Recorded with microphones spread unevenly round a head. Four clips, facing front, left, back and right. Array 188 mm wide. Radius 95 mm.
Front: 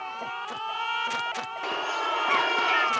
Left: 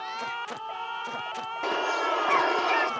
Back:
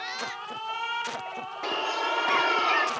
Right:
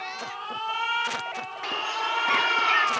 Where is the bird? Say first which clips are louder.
Left 3 dB, back 1 dB; 105° left.